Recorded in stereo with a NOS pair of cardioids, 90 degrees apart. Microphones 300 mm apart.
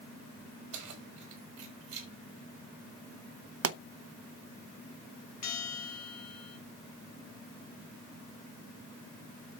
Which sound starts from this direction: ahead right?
A pop, at 3.6 s.